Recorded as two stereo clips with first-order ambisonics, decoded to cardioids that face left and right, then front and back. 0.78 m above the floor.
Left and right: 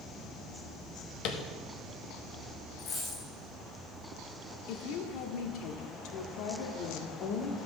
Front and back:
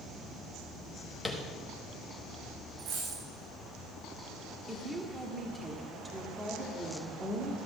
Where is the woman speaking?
105° left, 1.4 m.